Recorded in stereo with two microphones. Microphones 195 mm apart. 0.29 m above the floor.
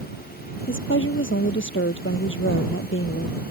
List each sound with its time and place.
0.7 s a woman speaking: 80° left